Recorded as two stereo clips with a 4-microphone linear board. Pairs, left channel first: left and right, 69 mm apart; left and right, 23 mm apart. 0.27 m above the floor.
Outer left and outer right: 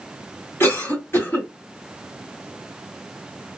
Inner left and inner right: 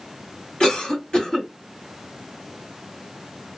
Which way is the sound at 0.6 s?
35° left (ahead or behind).